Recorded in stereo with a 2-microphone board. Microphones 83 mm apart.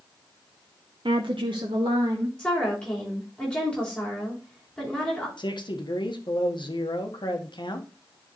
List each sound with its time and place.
1.1 s a woman speaking: 75° right (ahead or behind), 0.5 m; by 2.3 s 80° right, 2.0 m
2.4 s a woman speaking: 10° left (ahead or behind), 4.5 m
5.4 s a man speaking: 65° left (ahead or behind), 1.2 m